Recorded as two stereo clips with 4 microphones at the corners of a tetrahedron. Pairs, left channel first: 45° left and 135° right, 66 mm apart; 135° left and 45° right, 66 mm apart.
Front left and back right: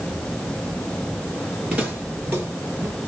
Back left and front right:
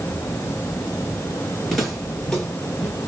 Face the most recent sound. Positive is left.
turn(degrees=-140)